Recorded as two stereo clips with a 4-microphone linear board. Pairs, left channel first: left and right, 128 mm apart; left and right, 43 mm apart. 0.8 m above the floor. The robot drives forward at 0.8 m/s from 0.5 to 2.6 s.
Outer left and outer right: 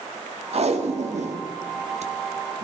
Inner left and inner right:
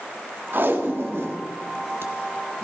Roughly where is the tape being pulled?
Right.